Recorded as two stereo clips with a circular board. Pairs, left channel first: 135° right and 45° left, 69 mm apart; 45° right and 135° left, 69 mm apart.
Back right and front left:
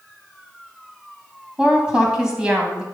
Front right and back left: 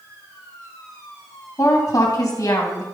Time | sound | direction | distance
1.6 | a woman speaking | 30° right | 2.5 m